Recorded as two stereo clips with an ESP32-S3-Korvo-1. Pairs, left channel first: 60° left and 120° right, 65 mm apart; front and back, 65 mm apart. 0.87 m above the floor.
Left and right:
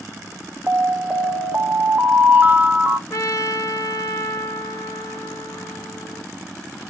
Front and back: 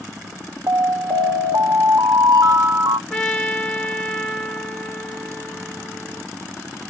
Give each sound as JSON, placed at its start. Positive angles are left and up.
{"t": 0.7, "sound": "an alarm", "azimuth_deg": 175, "distance_m": 0.5}
{"t": 3.1, "sound": "a trumpet", "azimuth_deg": 85, "distance_m": 1.1}